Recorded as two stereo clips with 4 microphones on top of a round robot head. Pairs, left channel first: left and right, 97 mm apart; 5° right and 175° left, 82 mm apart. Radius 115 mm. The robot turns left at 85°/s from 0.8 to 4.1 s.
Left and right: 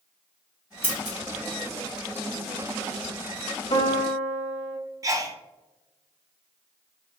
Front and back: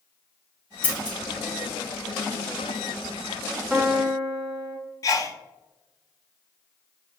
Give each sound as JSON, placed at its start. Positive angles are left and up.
{"t": 0.8, "sound": "scissors", "azimuth_deg": -10, "distance_m": 1.1}
{"t": 3.7, "sound": "a piano", "azimuth_deg": 110, "distance_m": 0.7}
{"t": 5.0, "sound": "a sneeze", "azimuth_deg": -45, "distance_m": 0.8}